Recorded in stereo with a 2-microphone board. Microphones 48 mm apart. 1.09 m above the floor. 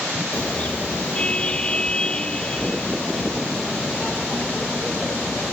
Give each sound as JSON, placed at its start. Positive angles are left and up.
{"t": 0.3, "sound": "a car horn", "side_deg": 25}